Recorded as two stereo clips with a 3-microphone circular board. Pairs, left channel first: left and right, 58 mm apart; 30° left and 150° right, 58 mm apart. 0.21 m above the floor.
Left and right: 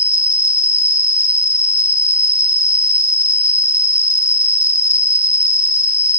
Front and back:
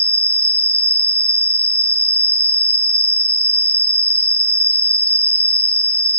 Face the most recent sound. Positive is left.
turn(degrees=90)